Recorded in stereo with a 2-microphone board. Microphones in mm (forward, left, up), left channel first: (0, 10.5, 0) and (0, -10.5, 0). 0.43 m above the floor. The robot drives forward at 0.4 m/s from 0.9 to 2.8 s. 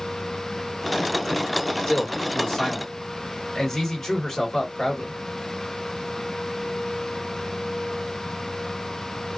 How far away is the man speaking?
About 1.6 m.